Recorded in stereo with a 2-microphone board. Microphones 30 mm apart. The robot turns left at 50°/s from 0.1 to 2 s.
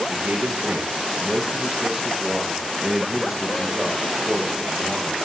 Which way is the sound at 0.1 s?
70° right.